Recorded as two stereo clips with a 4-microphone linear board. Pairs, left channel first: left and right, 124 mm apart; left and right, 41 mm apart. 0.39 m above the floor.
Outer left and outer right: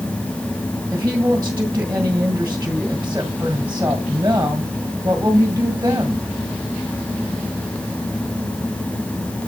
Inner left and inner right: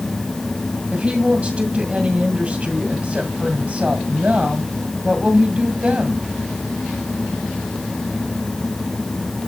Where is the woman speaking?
20° right (ahead or behind), 1.9 m.